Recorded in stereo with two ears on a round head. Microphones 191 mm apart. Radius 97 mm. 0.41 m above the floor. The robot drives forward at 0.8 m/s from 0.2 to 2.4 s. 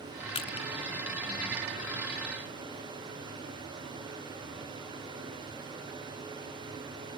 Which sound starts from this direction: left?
Crushing, at 0.3 s.